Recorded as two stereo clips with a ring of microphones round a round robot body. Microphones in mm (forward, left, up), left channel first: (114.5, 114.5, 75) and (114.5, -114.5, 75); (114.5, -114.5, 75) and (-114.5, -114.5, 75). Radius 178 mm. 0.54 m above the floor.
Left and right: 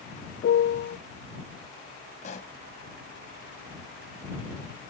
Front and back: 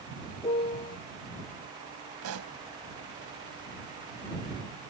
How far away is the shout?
I don't hear a shout.